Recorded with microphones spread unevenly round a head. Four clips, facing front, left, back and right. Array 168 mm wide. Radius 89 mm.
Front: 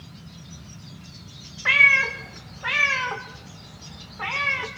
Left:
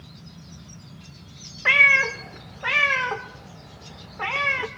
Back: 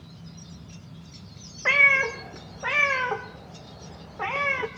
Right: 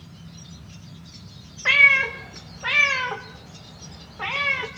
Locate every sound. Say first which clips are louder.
1.6 s a cat meowing: even, front 1 dB; 165° left, 1.0 m